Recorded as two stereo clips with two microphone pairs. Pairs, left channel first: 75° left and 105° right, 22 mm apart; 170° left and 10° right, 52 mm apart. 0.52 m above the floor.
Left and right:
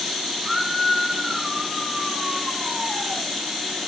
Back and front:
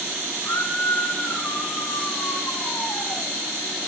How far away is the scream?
About 4 m.